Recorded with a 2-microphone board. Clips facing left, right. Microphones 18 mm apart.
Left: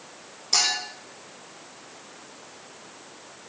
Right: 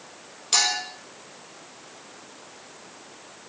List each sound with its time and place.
0.5 s a clink: 45° right (ahead or behind), 3.5 m